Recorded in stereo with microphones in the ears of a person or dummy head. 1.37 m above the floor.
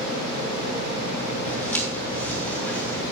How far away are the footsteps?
About 2.5 m.